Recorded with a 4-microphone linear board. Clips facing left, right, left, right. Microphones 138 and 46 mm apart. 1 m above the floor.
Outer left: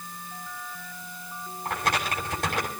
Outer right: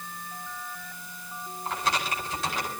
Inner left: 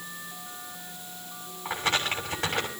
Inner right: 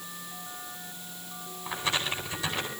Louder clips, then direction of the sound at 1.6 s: Outer left 1 dB, inner left 3 dB; 55° left (ahead or behind).